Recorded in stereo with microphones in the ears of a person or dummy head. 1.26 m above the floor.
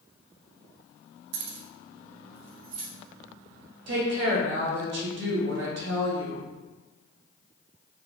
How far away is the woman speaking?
About 1.0 m.